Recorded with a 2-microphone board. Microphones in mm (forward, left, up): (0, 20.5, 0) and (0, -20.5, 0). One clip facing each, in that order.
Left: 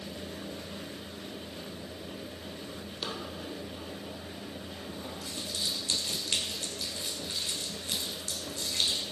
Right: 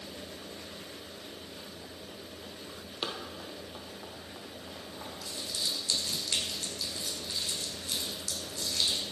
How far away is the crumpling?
About 2.5 m.